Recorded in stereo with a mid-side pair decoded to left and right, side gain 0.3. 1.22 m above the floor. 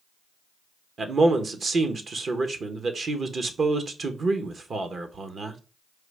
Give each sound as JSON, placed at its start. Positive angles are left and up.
{"t": 1.0, "sound": "a man speaking", "azimuth_deg": -60, "distance_m": 1.0}